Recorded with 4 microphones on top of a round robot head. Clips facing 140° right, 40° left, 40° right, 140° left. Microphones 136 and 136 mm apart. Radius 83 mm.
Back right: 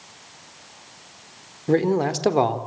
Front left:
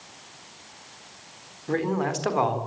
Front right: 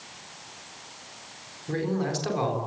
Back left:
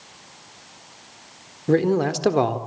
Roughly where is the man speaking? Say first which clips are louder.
Back right 6 dB, back left 9 dB; behind.